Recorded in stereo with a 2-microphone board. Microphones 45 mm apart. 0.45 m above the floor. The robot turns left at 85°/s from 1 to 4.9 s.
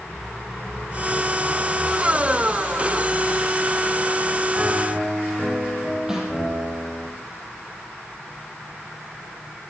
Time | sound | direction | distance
4.5 | a piano | 30° right (ahead or behind) | 5 m
6.1 | a snare drum | 10° right (ahead or behind) | 7 m